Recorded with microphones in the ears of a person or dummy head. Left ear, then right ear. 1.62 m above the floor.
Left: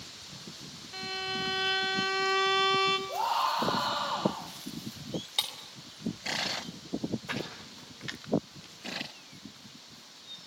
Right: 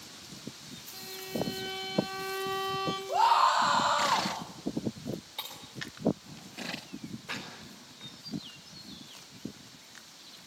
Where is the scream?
60° right (ahead or behind), 4.5 m.